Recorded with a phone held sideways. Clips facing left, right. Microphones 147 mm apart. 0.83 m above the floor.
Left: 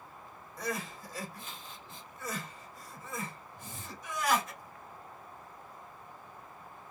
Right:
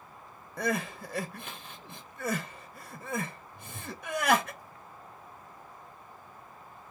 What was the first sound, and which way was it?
Crying, 65° right (ahead or behind).